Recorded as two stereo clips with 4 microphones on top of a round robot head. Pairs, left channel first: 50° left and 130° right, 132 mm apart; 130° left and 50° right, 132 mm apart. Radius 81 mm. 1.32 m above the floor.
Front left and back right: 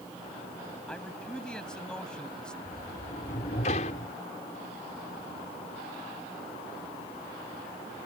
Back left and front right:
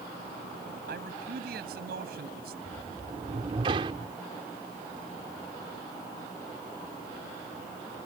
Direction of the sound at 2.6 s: 5° left.